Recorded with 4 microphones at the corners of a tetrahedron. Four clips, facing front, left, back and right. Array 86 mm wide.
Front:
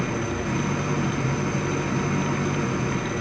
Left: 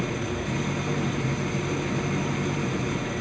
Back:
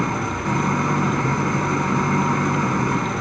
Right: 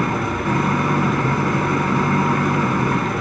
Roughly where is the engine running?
Behind right.